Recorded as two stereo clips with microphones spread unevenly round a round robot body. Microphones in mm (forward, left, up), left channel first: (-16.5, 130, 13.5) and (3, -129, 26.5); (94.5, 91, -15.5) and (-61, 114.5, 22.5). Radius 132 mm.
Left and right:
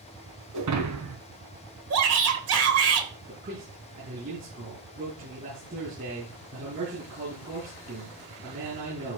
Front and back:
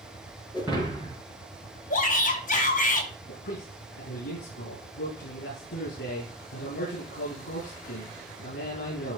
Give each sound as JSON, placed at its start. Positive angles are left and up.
{"t": 0.5, "sound": "breaking glass", "azimuth_deg": -110, "distance_m": 3.5}
{"t": 1.9, "sound": "a shout", "azimuth_deg": -55, "distance_m": 3.0}
{"t": 3.3, "sound": "a man speaking", "azimuth_deg": -25, "distance_m": 7.0}